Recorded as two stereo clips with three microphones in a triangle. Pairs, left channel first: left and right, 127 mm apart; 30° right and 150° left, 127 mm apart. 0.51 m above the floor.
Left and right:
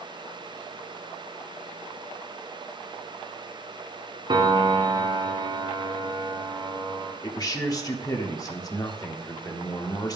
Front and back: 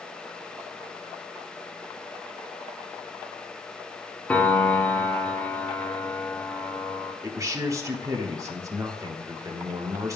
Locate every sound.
4.3 s a piano: 100° right, 0.9 m
7.2 s a man speaking: 115° left, 1.1 m